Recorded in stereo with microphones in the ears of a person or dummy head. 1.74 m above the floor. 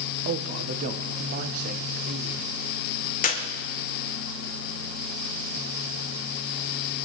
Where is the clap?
50° left (ahead or behind), 1.8 m.